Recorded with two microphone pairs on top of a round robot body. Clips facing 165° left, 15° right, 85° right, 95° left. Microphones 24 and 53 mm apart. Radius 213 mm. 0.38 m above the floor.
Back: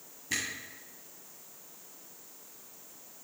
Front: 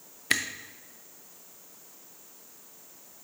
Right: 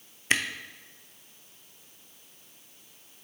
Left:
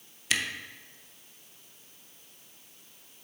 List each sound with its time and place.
0.3 s a camera shutter: 35° right, 0.7 m